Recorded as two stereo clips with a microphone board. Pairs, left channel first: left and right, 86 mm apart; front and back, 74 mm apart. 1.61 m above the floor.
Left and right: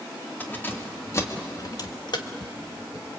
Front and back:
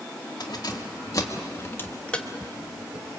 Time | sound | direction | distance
0.4 | keys jangling | 20° left | 2.5 m